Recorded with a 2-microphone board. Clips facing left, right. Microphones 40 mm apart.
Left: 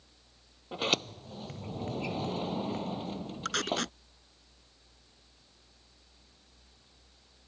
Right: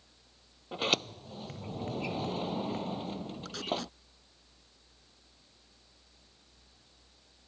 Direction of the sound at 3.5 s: 70° left (ahead or behind).